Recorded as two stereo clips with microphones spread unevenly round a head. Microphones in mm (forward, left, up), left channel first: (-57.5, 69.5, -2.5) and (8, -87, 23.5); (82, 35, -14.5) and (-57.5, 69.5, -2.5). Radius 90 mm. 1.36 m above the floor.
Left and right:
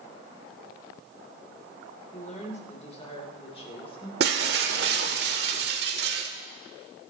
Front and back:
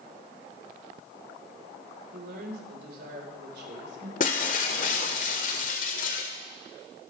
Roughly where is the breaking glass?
Ahead right.